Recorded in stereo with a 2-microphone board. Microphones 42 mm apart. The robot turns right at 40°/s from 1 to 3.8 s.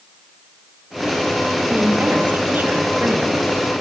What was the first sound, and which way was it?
A woman speaking, 130° right.